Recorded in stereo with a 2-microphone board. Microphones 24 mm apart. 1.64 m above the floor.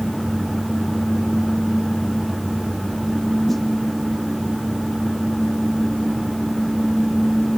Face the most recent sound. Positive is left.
turn(degrees=5)  # may be behind; listen again after turning